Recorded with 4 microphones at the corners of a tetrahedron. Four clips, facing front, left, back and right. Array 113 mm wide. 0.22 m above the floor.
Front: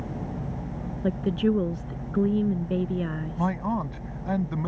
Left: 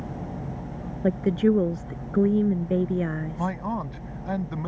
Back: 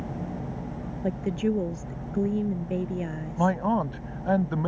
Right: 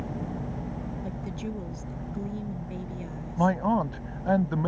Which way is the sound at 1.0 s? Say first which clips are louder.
Left 14 dB, front 3 dB; 80° left.